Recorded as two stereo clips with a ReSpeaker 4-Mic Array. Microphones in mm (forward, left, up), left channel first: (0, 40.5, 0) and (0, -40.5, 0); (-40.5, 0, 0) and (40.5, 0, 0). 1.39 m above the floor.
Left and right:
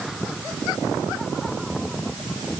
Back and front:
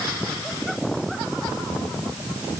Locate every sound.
Only background noise.